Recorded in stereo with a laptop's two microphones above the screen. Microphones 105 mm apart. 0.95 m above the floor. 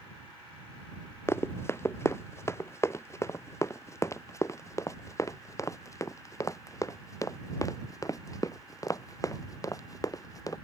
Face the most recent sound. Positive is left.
turn(degrees=35)  # may be behind; listen again after turning